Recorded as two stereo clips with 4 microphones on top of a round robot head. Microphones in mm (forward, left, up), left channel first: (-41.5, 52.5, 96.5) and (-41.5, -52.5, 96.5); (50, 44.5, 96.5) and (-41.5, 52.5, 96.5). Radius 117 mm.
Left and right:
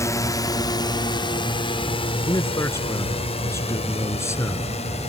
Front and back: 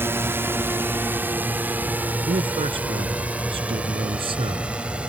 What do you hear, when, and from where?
0.0 s a drone: 130° left; by 5.1 s 100° left
2.3 s a man speaking: 155° left